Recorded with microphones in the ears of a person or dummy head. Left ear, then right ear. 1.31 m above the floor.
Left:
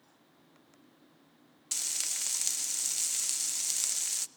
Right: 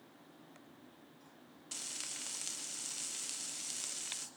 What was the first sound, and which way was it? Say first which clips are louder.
Frying: left 9 dB; 30° left (ahead or behind).